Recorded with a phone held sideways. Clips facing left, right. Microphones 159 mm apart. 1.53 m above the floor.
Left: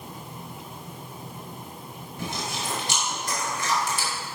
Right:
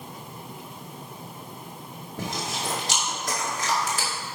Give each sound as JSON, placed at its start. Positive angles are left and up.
{"t": 2.2, "sound": "chewing", "side_deg": -85, "distance_m": 2.5}